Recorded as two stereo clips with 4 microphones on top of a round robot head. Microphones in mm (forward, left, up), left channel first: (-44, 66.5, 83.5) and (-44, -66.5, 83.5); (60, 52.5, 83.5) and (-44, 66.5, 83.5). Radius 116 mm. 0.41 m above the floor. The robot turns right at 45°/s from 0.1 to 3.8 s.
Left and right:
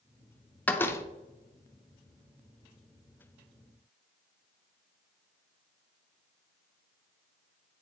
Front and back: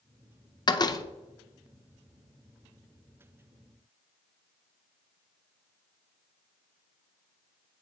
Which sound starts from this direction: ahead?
A door slam, at 0.7 s.